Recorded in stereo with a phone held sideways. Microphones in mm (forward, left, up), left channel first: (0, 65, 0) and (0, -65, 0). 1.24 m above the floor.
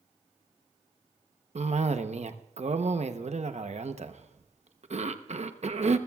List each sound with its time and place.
1.6 s a cough: 55° right (ahead or behind), 0.9 m